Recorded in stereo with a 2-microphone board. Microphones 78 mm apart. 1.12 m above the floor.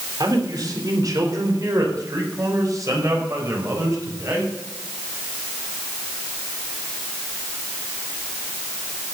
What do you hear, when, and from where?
0.2 s a man speaking: 60° right (ahead or behind), 3.5 m; by 4.5 s 45° right (ahead or behind), 6 m